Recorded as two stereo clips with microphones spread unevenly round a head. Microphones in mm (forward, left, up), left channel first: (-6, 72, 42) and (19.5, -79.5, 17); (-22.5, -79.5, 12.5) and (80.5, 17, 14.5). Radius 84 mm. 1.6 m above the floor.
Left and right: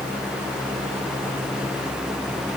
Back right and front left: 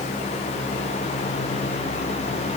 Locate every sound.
Only background noise.